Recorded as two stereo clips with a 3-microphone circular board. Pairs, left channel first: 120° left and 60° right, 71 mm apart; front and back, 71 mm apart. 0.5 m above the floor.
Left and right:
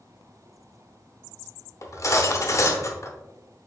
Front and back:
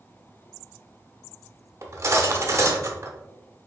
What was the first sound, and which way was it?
Cutlery clinking, 145° left.